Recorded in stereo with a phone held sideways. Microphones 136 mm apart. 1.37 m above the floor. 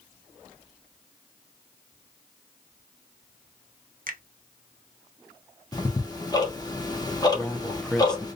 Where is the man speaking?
5° left (ahead or behind), 0.8 m.